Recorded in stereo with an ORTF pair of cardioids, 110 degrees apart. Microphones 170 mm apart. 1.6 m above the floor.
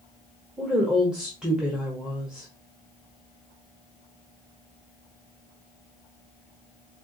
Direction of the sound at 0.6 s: 5° right.